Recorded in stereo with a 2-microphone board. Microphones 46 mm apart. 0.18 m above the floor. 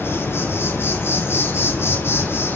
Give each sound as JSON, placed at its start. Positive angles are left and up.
{"t": 0.0, "sound": "an insect", "side_deg": 60, "distance_m": 6.5}